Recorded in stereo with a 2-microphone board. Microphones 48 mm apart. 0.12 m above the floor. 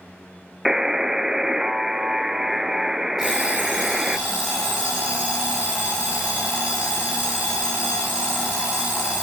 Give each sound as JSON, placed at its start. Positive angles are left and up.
{"t": 0.7, "sound": "a buzzer", "side_deg": -10, "distance_m": 0.5}
{"t": 3.2, "sound": "an alarm clock", "side_deg": -5, "distance_m": 9.0}